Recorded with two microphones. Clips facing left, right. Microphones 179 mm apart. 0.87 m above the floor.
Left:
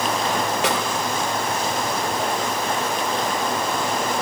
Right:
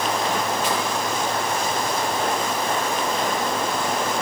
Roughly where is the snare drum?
Left.